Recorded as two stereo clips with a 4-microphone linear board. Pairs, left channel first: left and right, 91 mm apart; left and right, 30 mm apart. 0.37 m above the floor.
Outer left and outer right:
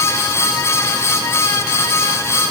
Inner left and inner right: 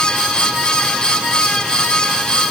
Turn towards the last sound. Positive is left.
No sound to turn to.